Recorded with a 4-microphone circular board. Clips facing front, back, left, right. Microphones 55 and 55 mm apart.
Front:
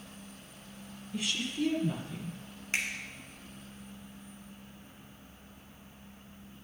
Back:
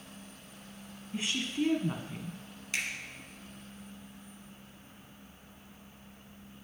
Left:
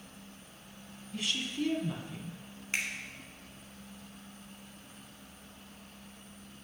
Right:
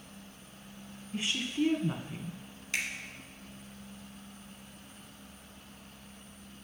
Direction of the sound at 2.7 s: 40° left.